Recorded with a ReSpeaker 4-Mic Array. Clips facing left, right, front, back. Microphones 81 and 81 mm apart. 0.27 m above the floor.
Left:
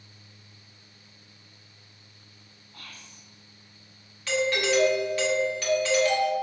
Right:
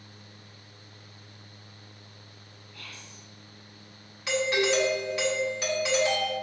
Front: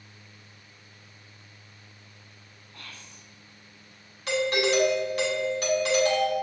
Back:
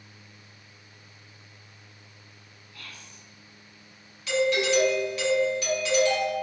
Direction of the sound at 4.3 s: 20° right.